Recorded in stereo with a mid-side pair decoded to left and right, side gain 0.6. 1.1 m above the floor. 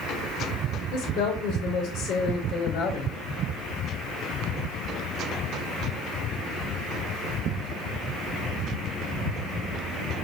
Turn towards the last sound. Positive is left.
turn(degrees=55)